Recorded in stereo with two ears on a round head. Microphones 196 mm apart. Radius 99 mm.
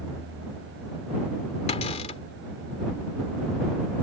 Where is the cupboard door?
30° left (ahead or behind).